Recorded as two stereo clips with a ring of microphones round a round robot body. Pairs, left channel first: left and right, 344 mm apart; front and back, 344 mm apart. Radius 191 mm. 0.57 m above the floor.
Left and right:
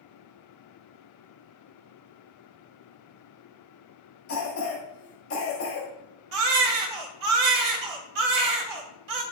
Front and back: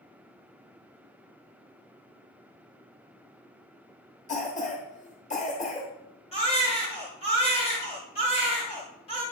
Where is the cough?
60° left, 1.4 m.